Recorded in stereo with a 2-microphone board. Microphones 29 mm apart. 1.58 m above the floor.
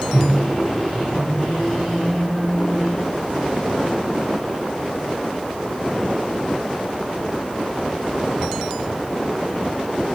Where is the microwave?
15° right (ahead or behind), 1.2 m.